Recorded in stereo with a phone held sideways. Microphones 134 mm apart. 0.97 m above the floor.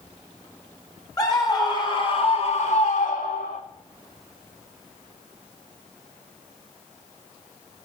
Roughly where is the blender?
I don't hear a blender.